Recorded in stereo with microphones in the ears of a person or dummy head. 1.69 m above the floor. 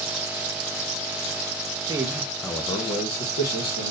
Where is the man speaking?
20° right (ahead or behind), 0.5 m; by 3.9 s 55° left (ahead or behind), 1.0 m.